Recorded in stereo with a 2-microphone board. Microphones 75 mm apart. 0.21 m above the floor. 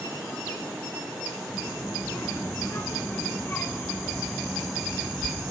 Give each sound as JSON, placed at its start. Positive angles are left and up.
{"t": 1.5, "sound": "a child speaking", "side_deg": 40, "distance_m": 2.0}